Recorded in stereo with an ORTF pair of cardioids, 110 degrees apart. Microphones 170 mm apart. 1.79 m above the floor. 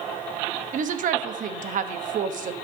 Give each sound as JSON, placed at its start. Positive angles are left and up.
{"t": 0.7, "sound": "a woman speaking", "azimuth_deg": -50, "distance_m": 1.0}